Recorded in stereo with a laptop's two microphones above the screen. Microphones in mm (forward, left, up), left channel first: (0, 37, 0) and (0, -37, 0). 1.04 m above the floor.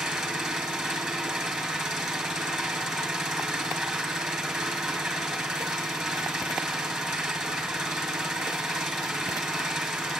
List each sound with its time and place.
0.0 s an engine running: centre (ahead or behind), 8.5 m